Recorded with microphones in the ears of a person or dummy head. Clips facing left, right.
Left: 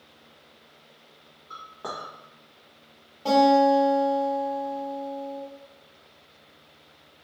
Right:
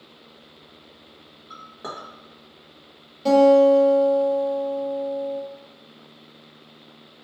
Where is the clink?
30° right (ahead or behind), 0.9 m.